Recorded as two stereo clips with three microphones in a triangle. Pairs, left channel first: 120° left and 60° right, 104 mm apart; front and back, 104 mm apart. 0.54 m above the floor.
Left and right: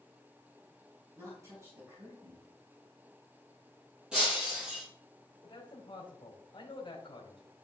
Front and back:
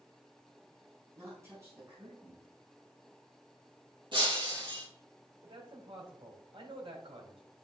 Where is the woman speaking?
120° right, 4.5 m.